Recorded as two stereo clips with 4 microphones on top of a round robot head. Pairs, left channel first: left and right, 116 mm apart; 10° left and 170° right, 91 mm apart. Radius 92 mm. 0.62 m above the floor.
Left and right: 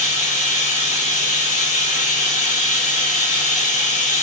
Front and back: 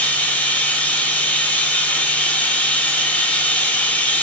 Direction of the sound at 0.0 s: 80° left.